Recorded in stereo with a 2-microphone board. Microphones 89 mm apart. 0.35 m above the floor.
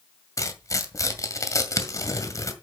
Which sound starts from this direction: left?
Tearing paper, at 0.4 s.